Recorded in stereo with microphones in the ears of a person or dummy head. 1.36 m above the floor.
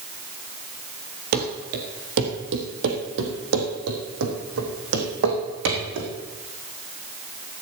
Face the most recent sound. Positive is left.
turn(degrees=-75)  # may be behind; listen again after turning